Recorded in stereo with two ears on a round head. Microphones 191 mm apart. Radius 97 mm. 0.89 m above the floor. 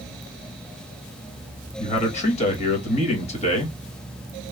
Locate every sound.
1.8 s a man speaking: 35° left (ahead or behind), 1.1 m